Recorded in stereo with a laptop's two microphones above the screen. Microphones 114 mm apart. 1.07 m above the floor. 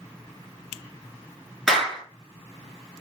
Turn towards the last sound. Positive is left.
turn(degrees=-5)  # may be behind; listen again after turning